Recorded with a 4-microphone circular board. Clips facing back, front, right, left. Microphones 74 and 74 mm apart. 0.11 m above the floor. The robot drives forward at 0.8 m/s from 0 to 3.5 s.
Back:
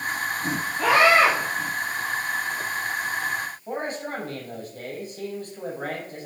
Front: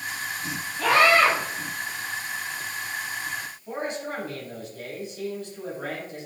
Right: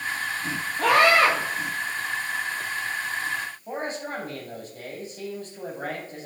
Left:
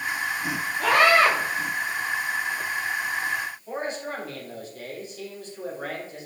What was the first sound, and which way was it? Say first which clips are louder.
A scream: back 1 dB, even; 115° right.